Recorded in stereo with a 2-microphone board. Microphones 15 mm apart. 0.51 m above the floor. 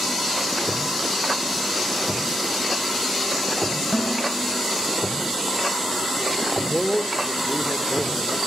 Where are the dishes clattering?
45° left (ahead or behind), 6.5 m.